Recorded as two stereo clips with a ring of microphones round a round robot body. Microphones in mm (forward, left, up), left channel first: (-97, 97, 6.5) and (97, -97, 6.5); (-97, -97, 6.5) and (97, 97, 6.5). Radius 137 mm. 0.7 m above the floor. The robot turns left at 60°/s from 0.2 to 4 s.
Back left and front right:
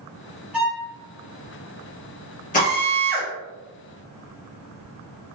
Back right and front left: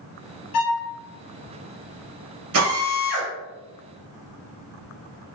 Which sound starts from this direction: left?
A drill, at 2.5 s.